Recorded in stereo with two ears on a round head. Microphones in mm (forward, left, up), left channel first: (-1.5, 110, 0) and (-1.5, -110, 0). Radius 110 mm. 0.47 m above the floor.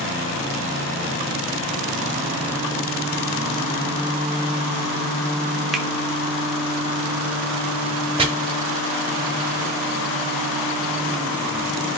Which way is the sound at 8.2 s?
20° right (ahead or behind).